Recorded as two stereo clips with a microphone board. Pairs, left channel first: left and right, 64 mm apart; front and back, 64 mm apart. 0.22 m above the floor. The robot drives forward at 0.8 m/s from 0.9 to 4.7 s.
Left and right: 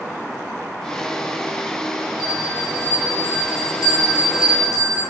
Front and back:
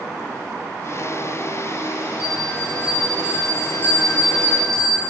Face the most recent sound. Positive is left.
turn(degrees=80)